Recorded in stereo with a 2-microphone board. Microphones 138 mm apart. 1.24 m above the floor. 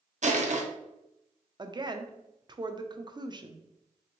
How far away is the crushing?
About 0.7 m.